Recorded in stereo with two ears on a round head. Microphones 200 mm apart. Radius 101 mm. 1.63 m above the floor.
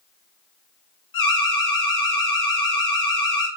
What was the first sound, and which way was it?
An alarm, 55° left (ahead or behind).